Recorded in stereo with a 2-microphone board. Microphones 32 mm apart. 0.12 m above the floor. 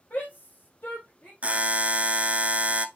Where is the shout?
65° left (ahead or behind), 4 m; by 1.3 s 70° left (ahead or behind), 3.5 m.